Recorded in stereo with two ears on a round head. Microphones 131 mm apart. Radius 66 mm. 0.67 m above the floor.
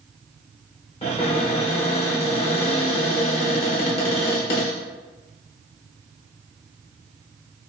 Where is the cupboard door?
45° left (ahead or behind), 1.0 m.